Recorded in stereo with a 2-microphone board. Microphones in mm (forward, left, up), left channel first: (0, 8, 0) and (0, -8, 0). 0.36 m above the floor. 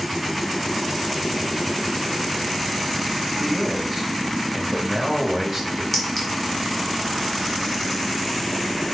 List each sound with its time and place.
3.4 s a man speaking: 5° right (ahead or behind), 1.2 m
5.9 s a clink: 20° left (ahead or behind), 3.5 m